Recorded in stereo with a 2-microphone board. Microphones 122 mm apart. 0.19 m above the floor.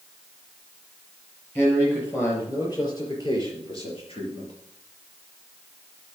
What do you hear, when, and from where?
1.6 s a man speaking: 15° left (ahead or behind), 4.5 m; by 4.5 s 55° left (ahead or behind), 4.5 m